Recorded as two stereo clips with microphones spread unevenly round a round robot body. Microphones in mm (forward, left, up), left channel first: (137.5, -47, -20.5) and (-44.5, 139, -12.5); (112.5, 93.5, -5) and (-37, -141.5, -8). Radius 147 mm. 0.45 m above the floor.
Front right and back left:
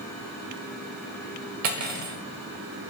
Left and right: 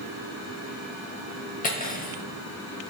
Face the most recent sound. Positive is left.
turn(degrees=120)